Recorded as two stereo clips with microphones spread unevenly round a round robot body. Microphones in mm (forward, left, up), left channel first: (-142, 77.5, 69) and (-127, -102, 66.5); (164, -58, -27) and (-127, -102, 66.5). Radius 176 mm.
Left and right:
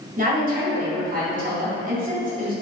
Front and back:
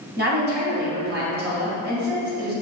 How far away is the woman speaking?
About 1.8 m.